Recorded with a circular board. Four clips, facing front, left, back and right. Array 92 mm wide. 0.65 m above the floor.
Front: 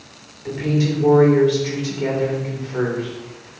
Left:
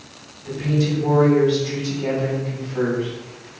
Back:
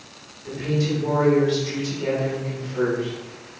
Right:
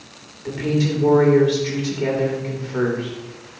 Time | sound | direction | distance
0.5 | a woman speaking | 50° right | 2.5 m